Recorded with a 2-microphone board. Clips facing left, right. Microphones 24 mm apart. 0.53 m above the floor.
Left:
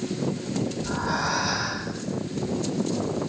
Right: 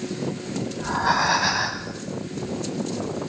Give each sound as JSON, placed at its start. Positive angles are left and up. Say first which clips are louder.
{"t": 0.8, "sound": "breathing", "louder": "right 10 dB", "side_deg": -60, "distance_m": 1.5}